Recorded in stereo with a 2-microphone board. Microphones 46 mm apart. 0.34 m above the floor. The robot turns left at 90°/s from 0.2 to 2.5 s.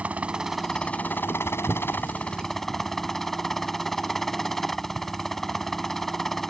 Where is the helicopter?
145° right; by 6.5 s 5° left.